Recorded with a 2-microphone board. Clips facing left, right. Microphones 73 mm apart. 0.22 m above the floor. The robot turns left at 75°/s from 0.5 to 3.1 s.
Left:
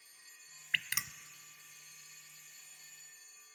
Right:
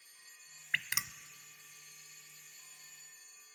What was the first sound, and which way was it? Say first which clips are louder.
Dripping: right 1 dB; 25° right (ahead or behind).